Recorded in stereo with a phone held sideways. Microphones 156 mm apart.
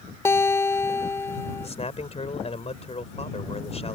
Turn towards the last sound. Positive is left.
turn(degrees=45)  # may be behind; listen again after turning